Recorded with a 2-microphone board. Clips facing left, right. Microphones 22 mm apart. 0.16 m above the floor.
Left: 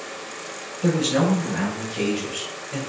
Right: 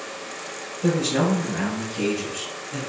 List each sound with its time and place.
0.8 s a man speaking: 40° left (ahead or behind), 1.3 m; by 2.8 s 55° left (ahead or behind), 2.0 m